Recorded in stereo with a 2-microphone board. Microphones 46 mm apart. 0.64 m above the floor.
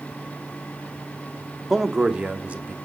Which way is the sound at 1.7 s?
5° right (ahead or behind).